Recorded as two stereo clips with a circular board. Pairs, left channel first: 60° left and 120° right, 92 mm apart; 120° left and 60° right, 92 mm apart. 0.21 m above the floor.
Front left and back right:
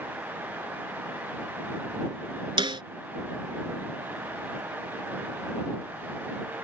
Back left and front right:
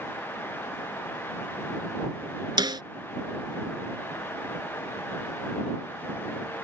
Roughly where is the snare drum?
Right.